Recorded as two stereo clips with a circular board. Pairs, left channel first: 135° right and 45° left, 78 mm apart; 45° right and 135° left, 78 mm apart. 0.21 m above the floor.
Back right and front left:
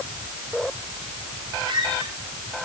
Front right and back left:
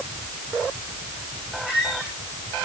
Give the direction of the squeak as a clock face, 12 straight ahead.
10 o'clock.